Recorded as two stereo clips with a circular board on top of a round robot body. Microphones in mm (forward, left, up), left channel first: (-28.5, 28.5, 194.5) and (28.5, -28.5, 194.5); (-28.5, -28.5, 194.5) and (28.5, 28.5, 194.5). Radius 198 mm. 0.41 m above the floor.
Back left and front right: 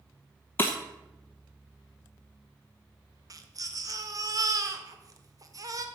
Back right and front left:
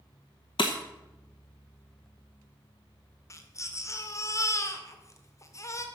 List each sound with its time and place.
0.6 s breaking glass: 160° right, 0.6 m
3.3 s a baby crying: 85° right, 1.7 m